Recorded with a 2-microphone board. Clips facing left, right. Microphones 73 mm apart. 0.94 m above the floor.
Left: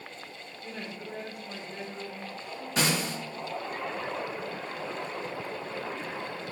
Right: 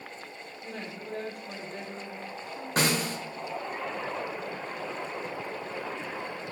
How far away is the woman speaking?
About 2 m.